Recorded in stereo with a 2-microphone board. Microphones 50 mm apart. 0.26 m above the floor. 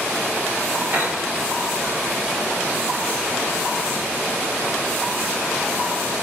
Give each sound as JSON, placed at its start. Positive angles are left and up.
{"t": 0.9, "sound": "a piano", "side_deg": -40, "distance_m": 4.5}